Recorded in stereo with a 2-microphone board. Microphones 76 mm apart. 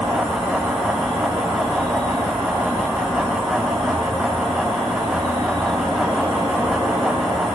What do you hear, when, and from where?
0.0 s an insect: 65° right (ahead or behind), 4.5 m